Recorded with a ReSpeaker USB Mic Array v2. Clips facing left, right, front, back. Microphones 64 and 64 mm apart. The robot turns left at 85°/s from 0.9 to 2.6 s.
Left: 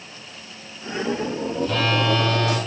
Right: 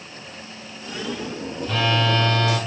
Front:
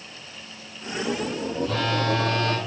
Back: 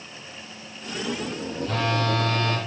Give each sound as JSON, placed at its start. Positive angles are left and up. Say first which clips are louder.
{"t": 1.6, "sound": "a phone buzzing", "louder": "even, even", "azimuth_deg": -150, "distance_m": 2.0}